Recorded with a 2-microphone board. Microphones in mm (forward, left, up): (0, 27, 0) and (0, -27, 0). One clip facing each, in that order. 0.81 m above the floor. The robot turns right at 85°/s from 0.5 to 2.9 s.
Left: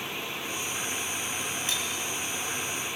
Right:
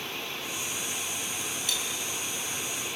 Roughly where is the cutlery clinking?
Left.